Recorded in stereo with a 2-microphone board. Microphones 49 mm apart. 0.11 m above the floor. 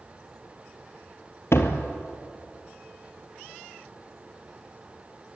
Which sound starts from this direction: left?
A door slam, at 1.5 s.